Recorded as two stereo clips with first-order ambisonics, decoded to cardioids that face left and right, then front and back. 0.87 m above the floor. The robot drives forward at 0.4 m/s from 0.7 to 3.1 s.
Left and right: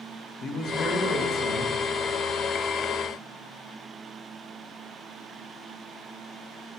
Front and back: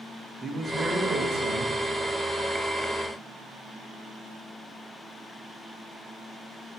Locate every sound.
0.4 s a man speaking: 110° left, 0.8 m; by 1.8 s 140° left, 1.0 m